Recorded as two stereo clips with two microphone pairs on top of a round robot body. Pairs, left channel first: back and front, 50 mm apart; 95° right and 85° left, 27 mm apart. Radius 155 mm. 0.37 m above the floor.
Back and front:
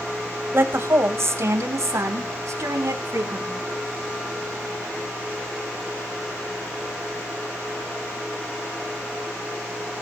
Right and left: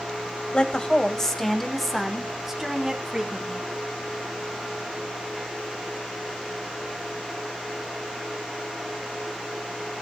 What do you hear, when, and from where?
0.5 s a woman speaking: 40° right, 2.5 m; by 3.6 s 15° left, 4.5 m